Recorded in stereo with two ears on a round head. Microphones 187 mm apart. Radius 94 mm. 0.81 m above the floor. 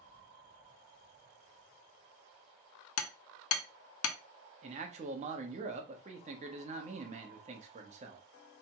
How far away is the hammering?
About 0.5 m.